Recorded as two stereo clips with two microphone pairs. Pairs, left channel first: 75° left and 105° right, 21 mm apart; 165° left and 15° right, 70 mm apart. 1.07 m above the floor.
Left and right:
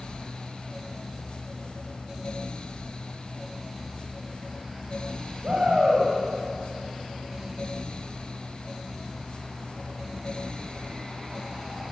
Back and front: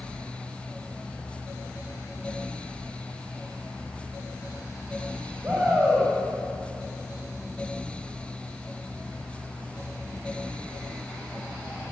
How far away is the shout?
About 7 m.